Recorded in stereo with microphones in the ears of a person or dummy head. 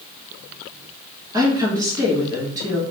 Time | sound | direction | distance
1.3 | a woman speaking | 20° right (ahead or behind) | 1.6 m